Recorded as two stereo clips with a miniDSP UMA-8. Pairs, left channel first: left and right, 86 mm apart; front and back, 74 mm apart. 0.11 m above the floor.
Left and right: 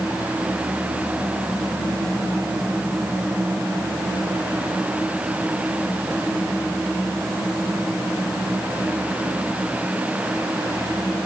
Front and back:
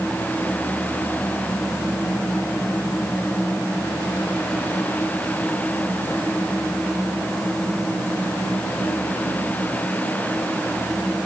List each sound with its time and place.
Only background noise.